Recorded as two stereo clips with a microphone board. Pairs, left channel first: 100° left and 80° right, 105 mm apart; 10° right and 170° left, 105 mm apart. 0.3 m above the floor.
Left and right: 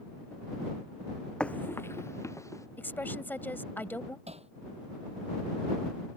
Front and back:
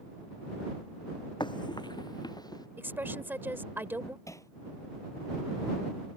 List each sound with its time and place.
1.4 s running footsteps: 20° left; by 2.7 s 40° left
2.8 s a woman speaking: 135° left
4.3 s hammering: 70° right